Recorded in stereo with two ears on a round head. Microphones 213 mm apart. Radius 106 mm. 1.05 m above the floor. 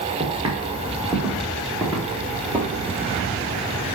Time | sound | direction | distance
0.2 | footsteps | 20° right (ahead or behind) | 3.5 m